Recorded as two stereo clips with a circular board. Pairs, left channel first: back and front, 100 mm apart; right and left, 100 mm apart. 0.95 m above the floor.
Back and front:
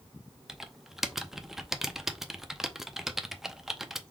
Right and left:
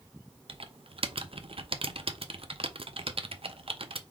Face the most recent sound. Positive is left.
turn(degrees=85)